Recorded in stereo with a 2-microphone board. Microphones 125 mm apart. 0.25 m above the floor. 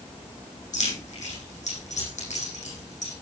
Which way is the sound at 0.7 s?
70° left (ahead or behind).